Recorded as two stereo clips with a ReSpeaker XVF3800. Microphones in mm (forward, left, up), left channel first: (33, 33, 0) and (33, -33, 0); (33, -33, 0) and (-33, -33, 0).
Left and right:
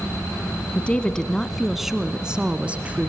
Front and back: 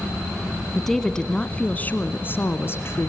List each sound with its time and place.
0.8 s a woman speaking: 80° left, 1.1 m; by 3.1 s 35° right, 1.6 m